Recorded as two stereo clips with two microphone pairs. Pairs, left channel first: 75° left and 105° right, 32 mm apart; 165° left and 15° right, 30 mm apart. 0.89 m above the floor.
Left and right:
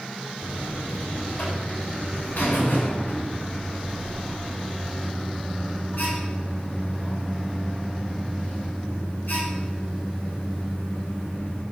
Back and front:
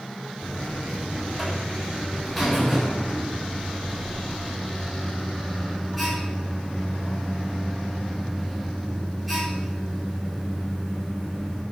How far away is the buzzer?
About 5 m.